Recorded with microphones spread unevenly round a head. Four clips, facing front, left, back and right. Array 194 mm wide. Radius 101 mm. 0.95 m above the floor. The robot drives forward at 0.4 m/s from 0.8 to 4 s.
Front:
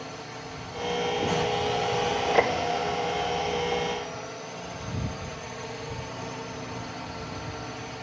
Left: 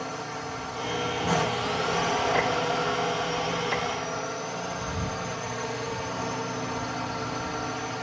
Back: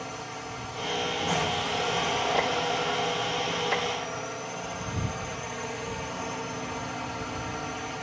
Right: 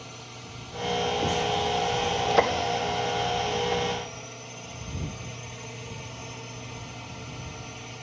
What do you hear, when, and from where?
0.0 s a drone: 90° left; by 8.0 s 100° left